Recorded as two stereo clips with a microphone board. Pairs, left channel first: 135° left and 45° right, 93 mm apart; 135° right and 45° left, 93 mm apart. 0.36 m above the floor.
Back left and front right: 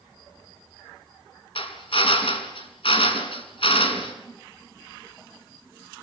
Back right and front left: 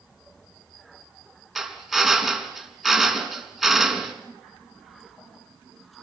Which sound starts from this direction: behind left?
A drill, at 1.6 s.